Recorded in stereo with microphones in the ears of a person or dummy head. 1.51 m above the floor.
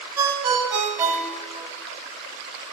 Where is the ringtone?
10° right (ahead or behind), 3.5 m.